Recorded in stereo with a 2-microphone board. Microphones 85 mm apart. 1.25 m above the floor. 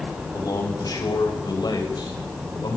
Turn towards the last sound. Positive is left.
turn(degrees=60)  # may be behind; listen again after turning